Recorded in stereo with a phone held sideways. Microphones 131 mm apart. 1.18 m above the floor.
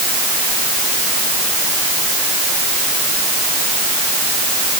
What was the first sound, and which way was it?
Only background noise.